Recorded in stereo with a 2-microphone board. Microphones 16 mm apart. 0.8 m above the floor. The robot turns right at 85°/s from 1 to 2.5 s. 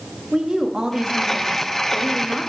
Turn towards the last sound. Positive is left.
turn(degrees=40)